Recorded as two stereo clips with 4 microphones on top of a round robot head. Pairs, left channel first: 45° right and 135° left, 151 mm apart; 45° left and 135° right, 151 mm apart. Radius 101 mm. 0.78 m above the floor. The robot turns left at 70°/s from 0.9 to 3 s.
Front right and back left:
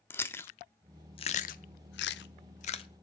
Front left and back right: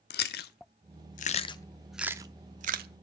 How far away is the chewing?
About 0.6 m.